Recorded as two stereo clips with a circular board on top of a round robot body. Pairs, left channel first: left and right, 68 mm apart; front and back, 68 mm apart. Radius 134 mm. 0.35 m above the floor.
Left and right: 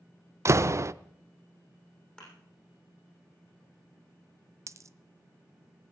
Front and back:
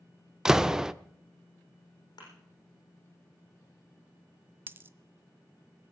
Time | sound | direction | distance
0.5 | a door slam | 100° right | 0.6 m
2.2 | a thud | 15° left | 6.5 m
4.7 | a dropped coin | 125° right | 0.7 m